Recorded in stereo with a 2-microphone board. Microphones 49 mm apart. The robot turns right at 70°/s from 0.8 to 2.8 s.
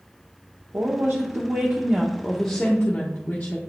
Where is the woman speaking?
110° right, 1.0 m; by 3.6 s 30° left, 1.0 m.